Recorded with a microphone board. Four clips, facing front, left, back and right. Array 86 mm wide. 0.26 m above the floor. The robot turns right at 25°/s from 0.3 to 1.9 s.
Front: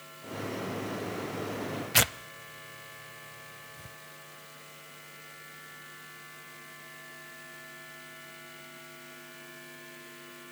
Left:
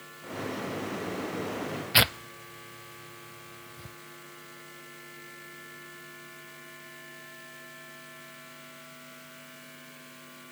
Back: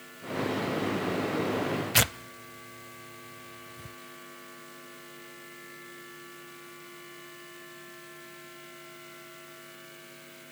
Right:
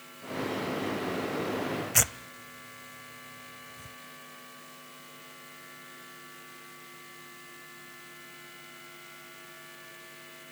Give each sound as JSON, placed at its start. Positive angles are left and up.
{"t": 1.9, "sound": "tearing paper", "azimuth_deg": 90, "distance_m": 0.5}